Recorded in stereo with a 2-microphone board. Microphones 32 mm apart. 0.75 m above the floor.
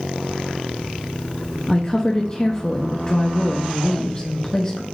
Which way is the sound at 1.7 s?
25° left (ahead or behind).